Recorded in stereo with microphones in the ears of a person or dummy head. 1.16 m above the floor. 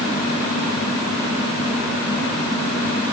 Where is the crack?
No crack in this recording.